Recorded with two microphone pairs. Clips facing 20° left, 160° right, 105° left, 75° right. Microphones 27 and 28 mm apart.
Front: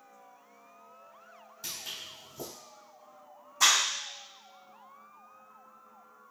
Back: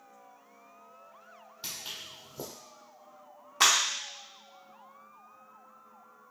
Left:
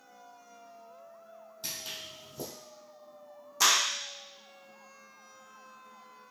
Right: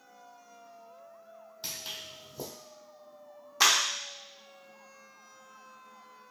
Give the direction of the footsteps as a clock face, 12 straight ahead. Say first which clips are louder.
Even, even; 5 o'clock.